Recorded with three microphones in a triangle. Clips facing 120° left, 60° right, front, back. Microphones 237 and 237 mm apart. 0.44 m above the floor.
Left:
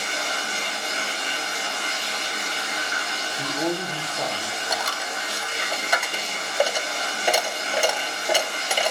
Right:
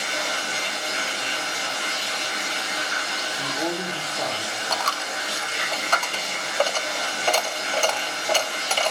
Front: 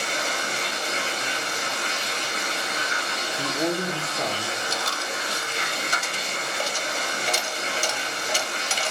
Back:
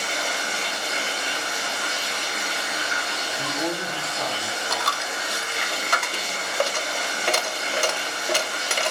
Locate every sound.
0.0 s running water: 55° right, 3.5 m
3.4 s a man speaking: 30° left, 1.3 m
4.7 s a dropped coin: 160° right, 0.6 m